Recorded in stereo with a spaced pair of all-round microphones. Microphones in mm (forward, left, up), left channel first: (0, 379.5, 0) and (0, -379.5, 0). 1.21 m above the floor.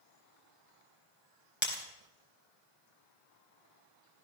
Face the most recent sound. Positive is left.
turn(degrees=15)  # may be behind; listen again after turning